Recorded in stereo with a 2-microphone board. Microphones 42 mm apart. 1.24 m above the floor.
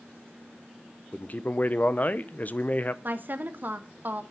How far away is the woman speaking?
About 1.0 m.